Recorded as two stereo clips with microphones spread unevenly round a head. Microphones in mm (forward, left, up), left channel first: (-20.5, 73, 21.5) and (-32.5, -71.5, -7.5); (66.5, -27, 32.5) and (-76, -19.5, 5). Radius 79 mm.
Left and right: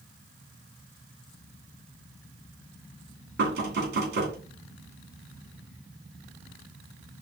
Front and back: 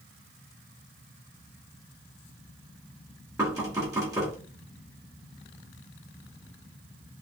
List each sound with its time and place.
3.4 s knocking: 115° right, 2.5 m